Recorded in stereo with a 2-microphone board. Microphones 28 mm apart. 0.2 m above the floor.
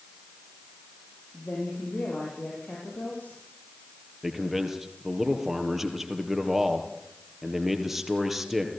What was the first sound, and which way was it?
A woman speaking, 65° left (ahead or behind).